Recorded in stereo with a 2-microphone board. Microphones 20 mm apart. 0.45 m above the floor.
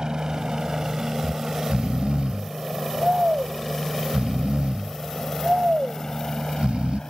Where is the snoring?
70° right (ahead or behind).